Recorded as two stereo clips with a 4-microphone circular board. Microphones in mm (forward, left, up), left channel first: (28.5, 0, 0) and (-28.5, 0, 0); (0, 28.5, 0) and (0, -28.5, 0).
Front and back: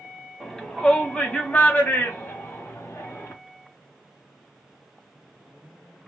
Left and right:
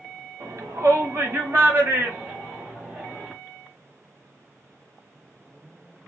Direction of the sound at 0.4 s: 85° right.